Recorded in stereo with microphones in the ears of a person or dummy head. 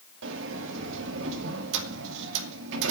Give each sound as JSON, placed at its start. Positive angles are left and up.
{"t": 0.2, "sound": "a sliding door", "side_deg": -75, "distance_m": 2.5}